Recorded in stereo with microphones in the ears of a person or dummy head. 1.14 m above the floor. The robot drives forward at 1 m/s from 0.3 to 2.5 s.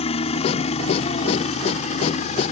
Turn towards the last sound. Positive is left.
turn(degrees=35)  # may be behind; listen again after turning